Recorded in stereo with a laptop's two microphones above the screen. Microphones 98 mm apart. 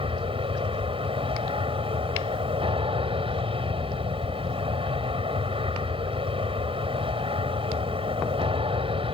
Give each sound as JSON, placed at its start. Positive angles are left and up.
{"t": 0.0, "sound": "an aircraft", "side_deg": -65}